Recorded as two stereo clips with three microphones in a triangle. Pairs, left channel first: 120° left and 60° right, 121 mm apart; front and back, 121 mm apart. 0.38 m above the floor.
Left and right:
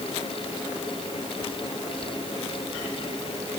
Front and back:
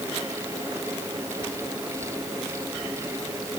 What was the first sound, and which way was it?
Only background noise.